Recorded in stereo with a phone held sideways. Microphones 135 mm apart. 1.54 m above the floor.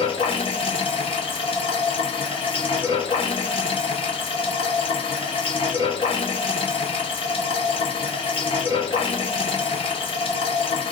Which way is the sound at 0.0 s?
40° left (ahead or behind).